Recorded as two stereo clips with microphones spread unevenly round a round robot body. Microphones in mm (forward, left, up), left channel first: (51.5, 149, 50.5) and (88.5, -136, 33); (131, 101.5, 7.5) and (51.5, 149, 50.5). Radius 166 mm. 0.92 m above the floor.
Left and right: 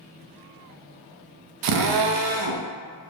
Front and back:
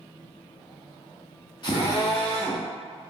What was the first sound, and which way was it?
A drill, 85° right.